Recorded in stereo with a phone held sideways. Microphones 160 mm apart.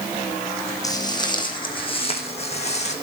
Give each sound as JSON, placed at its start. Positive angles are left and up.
{"t": 0.8, "sound": "footsteps", "side_deg": 25, "distance_m": 3.0}